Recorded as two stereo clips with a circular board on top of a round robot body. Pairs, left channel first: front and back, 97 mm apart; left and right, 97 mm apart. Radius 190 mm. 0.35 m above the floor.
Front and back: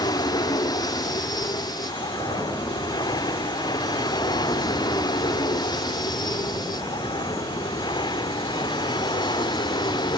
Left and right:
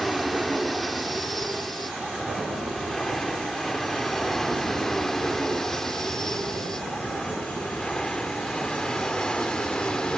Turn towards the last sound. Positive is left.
turn(degrees=10)